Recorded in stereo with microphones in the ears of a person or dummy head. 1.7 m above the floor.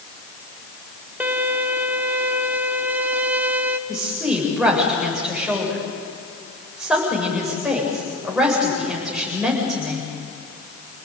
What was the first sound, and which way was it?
A violin, 5° right (ahead or behind).